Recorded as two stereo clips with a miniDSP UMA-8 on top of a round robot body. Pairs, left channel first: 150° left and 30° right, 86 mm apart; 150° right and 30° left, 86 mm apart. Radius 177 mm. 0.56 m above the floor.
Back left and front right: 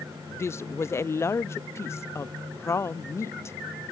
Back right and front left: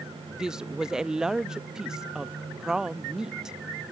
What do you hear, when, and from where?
0.3 s a woman speaking: 110° left